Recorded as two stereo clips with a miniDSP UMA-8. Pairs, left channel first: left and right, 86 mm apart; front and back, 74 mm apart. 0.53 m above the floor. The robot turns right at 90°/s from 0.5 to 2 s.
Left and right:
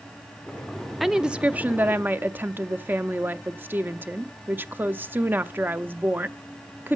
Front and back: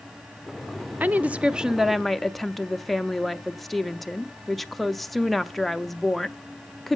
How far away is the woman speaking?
About 0.7 m.